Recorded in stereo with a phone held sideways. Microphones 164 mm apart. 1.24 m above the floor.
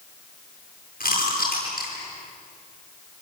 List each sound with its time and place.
1.0 s chewing: 60° left (ahead or behind), 10 m